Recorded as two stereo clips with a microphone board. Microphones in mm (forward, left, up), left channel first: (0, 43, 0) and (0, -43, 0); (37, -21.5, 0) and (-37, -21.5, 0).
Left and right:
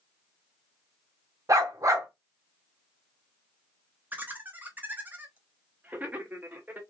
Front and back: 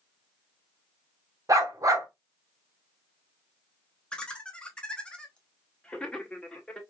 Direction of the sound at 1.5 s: 140° right.